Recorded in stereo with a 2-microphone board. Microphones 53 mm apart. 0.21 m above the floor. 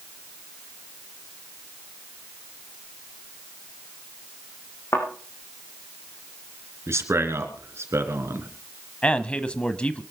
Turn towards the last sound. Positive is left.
turn(degrees=20)  # may be behind; listen again after turning